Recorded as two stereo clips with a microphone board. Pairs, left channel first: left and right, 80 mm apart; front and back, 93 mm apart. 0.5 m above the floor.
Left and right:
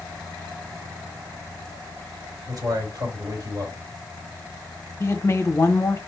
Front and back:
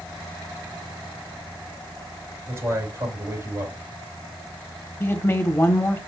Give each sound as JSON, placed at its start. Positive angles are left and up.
{"t": 2.5, "sound": "a man speaking", "azimuth_deg": -125, "distance_m": 3.5}
{"t": 5.0, "sound": "a woman speaking", "azimuth_deg": 50, "distance_m": 1.0}